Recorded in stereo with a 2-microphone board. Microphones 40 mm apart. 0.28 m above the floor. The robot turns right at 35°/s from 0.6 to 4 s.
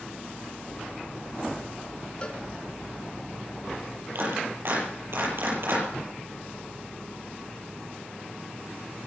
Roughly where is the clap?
Right.